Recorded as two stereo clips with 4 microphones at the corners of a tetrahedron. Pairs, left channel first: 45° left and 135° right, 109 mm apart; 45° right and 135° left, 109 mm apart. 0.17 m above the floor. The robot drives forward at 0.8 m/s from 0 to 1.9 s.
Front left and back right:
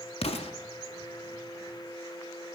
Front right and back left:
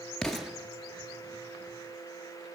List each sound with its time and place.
0.2 s an explosion: 35° left, 0.7 m; by 0.5 s 55° left, 0.6 m